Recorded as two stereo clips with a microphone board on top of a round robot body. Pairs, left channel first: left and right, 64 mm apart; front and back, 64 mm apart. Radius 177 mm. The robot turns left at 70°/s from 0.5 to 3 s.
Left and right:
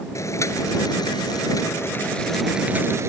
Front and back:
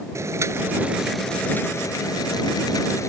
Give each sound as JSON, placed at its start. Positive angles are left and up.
{"t": 0.1, "sound": "boiling", "azimuth_deg": 135}